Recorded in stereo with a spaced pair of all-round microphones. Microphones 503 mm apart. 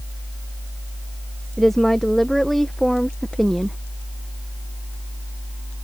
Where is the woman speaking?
Centre (ahead or behind).